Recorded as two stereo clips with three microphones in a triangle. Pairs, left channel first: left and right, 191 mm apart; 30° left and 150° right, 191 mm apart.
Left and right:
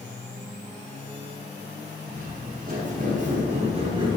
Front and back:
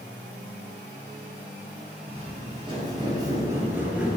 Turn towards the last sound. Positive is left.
turn(degrees=-65)